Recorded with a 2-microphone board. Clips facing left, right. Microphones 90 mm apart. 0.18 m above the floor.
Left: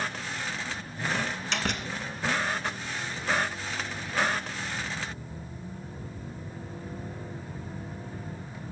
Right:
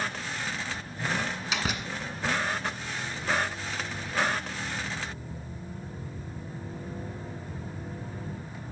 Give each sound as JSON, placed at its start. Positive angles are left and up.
{"t": 1.1, "sound": "a door slam", "side_deg": -5, "distance_m": 1.4}